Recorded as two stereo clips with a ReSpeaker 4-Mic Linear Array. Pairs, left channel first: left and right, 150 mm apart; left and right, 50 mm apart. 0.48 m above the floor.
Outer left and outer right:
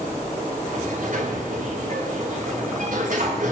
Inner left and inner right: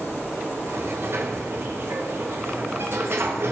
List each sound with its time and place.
0.7 s a sliding door: 60° right (ahead or behind), 7.5 m